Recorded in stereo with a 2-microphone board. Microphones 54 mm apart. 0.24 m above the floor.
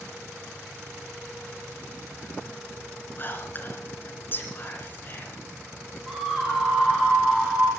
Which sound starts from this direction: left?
Whispering, at 3.2 s.